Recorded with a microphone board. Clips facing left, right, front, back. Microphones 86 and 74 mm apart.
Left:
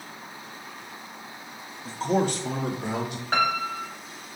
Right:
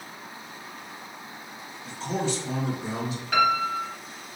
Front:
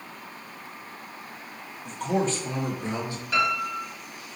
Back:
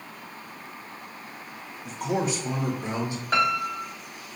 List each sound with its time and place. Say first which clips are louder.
1.9 s a man speaking: left 5 dB, front 1 dB; 95° left, 0.6 m; by 3.2 s 110° left, 1.6 m
3.3 s a piano: right 3 dB, back 1 dB; 140° left, 1.0 m